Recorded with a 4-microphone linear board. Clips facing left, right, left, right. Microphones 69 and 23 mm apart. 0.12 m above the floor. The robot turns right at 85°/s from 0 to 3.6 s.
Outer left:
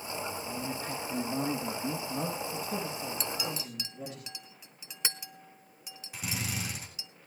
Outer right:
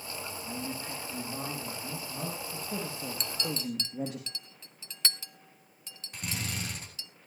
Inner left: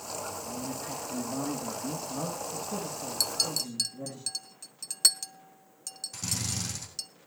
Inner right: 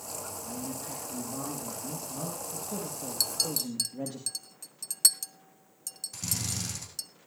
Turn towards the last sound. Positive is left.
turn(degrees=5)  # may be behind; listen again after turning